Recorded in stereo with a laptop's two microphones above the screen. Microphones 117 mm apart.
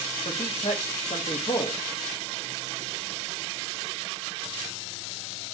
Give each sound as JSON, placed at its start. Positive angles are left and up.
{"t": 0.2, "sound": "a man speaking", "side_deg": 75, "distance_m": 1.4}